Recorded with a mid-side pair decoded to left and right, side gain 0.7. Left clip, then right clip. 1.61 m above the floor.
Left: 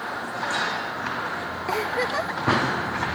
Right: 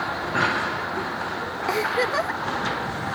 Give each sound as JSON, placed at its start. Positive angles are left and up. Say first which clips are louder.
{"t": 1.7, "sound": "a giggle", "louder": "right 2 dB", "azimuth_deg": -10}